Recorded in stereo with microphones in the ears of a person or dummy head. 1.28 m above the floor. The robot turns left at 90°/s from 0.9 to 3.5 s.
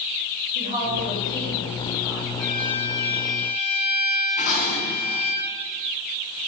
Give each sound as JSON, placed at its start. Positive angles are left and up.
{"t": 0.6, "sound": "a woman speaking", "azimuth_deg": -140, "distance_m": 5.5}
{"t": 2.4, "sound": "a violin", "azimuth_deg": 145, "distance_m": 4.5}
{"t": 4.4, "sound": "dishes clattering", "side_deg": 50, "distance_m": 5.0}